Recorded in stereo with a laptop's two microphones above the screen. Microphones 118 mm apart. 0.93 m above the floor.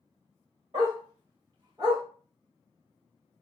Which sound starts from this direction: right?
A dog barking, at 0.7 s.